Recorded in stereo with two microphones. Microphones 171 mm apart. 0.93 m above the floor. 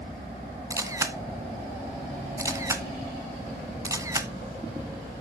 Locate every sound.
0.7 s a camera shutter: 20° right (ahead or behind), 0.7 m